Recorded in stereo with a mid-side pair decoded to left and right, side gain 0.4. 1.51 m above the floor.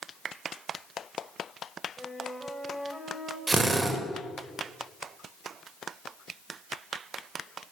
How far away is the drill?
About 5.5 m.